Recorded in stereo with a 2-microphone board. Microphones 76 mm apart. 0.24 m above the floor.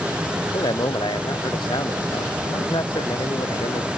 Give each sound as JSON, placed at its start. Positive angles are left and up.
{"t": 0.4, "sound": "a man speaking", "side_deg": 75}